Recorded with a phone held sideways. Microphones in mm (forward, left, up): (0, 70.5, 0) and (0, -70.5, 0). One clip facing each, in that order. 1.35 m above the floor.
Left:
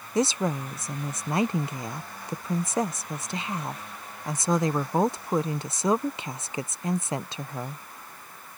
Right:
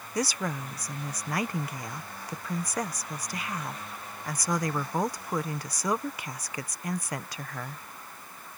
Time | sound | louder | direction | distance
0.1 | a woman speaking | left 6 dB | 25° left (ahead or behind) | ?